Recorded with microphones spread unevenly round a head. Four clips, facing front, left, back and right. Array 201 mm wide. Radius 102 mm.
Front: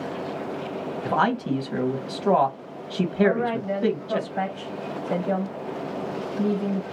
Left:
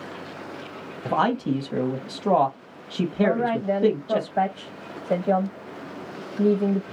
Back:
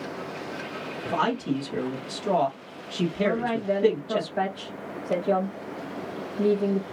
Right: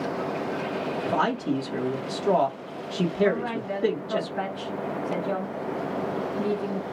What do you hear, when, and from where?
1.1 s a man speaking: 75° left, 1.3 m
3.2 s a woman speaking: 95° left, 1.7 m